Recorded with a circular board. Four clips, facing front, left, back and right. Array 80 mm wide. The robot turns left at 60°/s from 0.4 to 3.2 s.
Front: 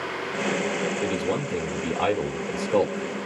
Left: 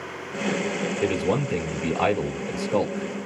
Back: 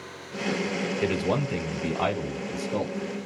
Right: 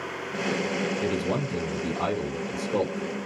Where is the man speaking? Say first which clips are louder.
Left 3 dB, even; 155° left, 2.5 m; by 3.2 s 25° left, 2.5 m.